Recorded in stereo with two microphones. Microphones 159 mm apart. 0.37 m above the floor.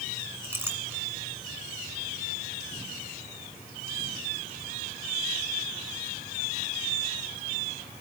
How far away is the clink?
About 2 m.